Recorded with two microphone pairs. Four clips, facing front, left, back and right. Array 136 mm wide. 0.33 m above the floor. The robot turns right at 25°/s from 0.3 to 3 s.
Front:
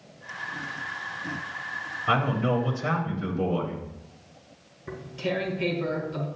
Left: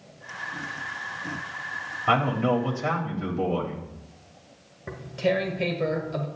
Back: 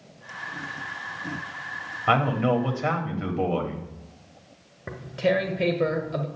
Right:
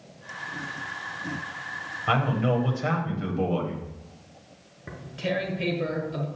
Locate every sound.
2.1 s a man speaking: 165° left, 1.4 m; by 3.8 s 170° right, 1.4 m
4.9 s tearing paper: 170° left, 1.4 m